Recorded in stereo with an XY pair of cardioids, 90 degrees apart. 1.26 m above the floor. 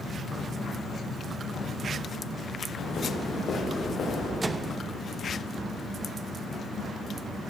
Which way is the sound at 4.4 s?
25° right.